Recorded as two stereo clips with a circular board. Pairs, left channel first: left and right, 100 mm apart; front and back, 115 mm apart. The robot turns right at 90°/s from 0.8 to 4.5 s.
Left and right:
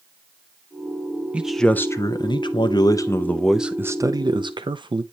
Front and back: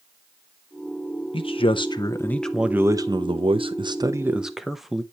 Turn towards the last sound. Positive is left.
turn(degrees=-90)